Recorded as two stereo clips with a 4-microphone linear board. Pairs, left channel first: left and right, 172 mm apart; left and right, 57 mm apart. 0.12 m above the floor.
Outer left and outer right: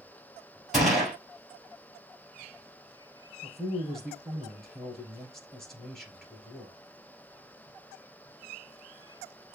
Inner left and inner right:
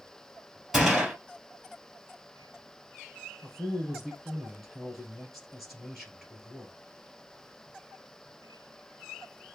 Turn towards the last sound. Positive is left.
turn(degrees=0)  # may be behind; listen again after turning